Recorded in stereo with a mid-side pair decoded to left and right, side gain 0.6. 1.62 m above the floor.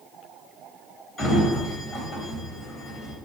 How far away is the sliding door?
About 1.7 m.